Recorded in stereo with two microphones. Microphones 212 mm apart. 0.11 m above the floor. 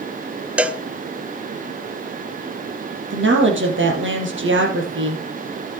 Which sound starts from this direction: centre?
A cowbell, at 0.6 s.